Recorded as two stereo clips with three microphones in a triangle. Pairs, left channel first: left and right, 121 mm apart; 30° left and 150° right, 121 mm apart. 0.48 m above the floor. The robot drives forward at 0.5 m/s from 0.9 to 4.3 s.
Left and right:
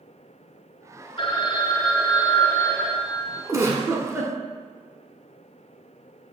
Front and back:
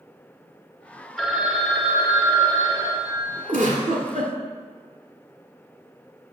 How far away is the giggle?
About 1.1 m.